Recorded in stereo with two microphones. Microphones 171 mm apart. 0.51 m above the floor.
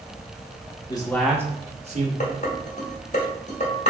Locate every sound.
0.9 s a man speaking: 25° left (ahead or behind), 0.8 m; by 2.1 s 50° right (ahead or behind), 1.2 m
2.2 s dishes clattering: 45° left (ahead or behind), 1.0 m